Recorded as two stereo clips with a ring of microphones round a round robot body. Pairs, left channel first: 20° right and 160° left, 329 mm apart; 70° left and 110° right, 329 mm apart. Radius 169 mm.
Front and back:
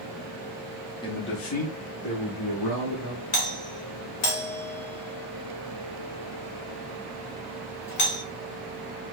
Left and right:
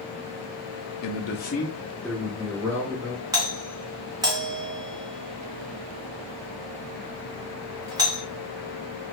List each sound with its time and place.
1.0 s a man speaking: 50° left, 0.7 m; by 3.2 s 40° right, 2 m
3.3 s a doorbell: 40° right, 1.9 m